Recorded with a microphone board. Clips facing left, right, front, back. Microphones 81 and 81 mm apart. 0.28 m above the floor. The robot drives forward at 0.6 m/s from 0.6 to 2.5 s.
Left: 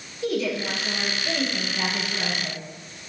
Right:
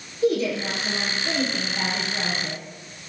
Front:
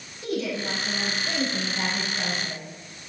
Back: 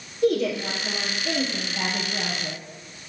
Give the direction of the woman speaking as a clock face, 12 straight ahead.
5 o'clock.